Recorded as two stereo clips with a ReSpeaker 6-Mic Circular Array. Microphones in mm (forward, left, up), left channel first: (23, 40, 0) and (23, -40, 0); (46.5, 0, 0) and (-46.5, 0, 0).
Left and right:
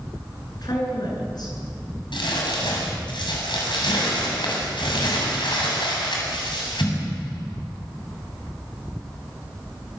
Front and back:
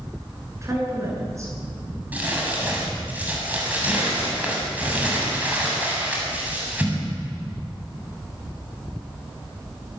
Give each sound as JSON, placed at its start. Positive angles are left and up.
{"t": 0.6, "sound": "a woman speaking", "azimuth_deg": 120, "distance_m": 9.0}
{"t": 2.1, "sound": "crumpling", "azimuth_deg": 105, "distance_m": 7.5}